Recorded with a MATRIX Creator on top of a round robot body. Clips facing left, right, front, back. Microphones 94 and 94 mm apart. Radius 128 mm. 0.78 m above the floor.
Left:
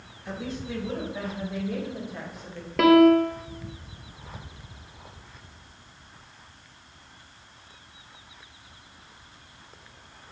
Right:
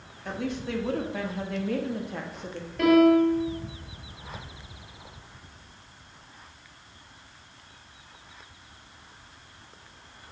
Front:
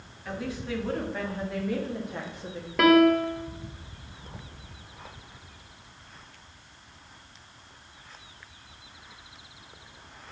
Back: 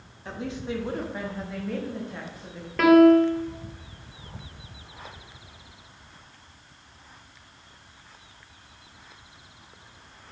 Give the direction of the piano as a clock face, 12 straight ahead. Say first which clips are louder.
Left 2 dB, back 4 dB; 9 o'clock.